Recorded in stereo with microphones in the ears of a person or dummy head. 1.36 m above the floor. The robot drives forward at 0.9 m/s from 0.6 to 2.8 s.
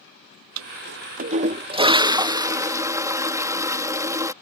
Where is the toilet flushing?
85° right; by 4.3 s 15° right (ahead or behind).